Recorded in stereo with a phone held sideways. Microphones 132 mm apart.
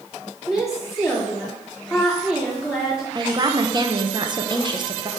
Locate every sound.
0.5 s a woman speaking: centre (ahead or behind), 3 m
3.1 s a woman speaking: 35° right (ahead or behind), 0.8 m